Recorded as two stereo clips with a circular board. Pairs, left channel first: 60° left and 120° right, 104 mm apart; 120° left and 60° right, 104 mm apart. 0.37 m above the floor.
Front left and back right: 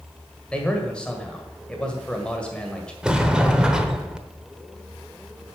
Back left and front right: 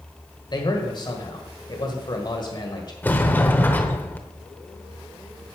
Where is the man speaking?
135° left, 1.7 m.